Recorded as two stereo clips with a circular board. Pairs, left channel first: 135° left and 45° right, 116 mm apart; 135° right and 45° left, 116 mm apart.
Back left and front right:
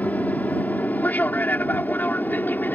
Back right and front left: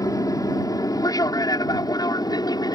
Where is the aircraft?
160° right.